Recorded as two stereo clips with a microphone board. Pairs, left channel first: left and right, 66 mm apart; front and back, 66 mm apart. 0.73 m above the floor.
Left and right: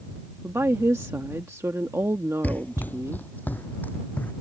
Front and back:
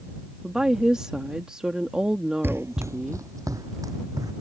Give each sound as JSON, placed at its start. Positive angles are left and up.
{"t": 0.4, "sound": "a woman speaking", "azimuth_deg": -105}
{"t": 2.4, "sound": "running footsteps", "azimuth_deg": 140}